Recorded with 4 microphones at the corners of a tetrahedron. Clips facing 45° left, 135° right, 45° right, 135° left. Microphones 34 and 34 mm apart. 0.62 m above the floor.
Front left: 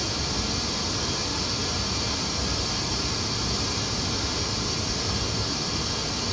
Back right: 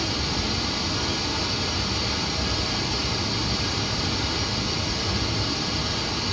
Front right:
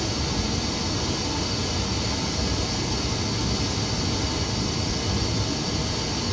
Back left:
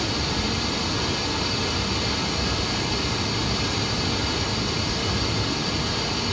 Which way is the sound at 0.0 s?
165° left.